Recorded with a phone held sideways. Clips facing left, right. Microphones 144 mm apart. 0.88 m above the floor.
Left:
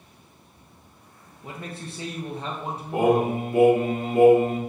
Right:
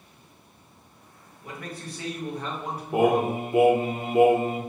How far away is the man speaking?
About 0.8 m.